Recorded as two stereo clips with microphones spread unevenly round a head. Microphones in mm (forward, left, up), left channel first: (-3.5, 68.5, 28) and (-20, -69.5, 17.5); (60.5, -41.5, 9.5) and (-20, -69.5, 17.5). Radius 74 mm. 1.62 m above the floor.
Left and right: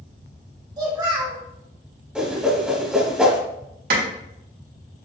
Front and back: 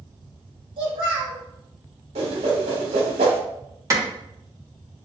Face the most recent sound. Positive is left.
turn(degrees=-110)